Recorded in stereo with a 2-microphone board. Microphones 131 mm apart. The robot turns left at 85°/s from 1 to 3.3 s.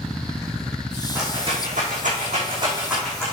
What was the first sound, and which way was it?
A rattle, 20° right (ahead or behind).